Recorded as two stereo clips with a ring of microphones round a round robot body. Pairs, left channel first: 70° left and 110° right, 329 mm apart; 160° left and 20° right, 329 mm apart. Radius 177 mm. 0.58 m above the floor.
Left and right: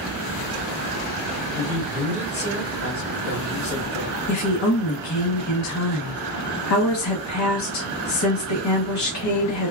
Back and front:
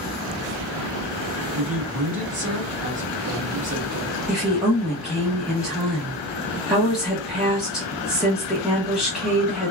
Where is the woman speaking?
65° left, 1.0 m.